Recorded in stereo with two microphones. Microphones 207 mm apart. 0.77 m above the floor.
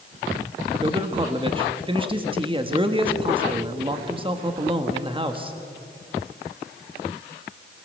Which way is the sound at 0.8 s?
25° right (ahead or behind).